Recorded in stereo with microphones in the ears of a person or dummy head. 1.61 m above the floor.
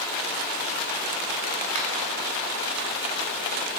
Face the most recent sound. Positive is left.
turn(degrees=-40)  # may be behind; listen again after turning